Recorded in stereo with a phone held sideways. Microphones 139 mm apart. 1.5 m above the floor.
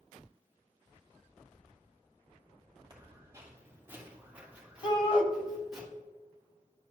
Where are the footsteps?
25° right (ahead or behind), 2.5 m; by 5.8 s centre (ahead or behind), 3.5 m.